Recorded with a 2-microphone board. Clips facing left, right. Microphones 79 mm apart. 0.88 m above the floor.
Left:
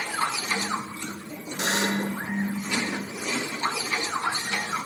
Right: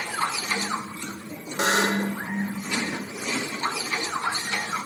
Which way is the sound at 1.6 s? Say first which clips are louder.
Right 4 dB; 70° right (ahead or behind).